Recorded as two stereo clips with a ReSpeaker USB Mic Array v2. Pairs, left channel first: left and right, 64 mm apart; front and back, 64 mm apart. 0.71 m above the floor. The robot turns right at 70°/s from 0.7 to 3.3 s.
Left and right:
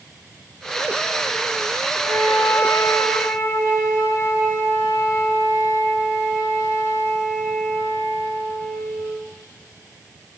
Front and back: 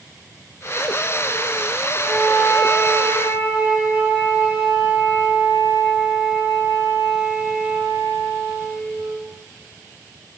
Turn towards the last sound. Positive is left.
turn(degrees=125)